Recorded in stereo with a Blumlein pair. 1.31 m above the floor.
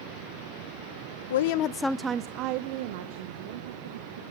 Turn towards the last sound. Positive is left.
turn(degrees=-60)